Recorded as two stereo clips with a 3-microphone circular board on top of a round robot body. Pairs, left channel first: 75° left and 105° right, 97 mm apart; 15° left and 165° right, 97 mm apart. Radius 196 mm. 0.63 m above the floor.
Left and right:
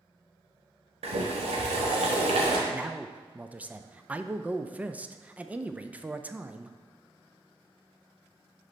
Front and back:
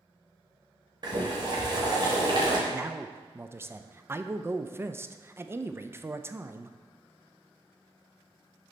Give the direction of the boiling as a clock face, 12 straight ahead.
4 o'clock.